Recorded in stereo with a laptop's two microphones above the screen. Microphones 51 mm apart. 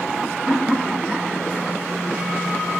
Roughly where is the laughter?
Centre.